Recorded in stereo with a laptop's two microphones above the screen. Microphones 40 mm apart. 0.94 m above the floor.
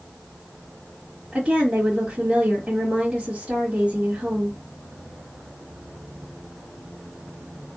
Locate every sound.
1.3 s a woman speaking: 35° right (ahead or behind), 2 m